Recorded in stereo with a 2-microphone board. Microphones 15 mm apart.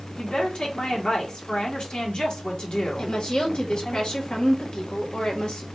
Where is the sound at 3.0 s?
65° left (ahead or behind), 1.6 m.